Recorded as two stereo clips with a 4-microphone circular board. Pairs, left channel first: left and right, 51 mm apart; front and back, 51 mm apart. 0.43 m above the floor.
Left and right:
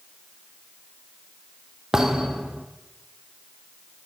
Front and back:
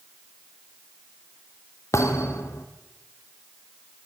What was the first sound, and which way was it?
A thud, 10° right.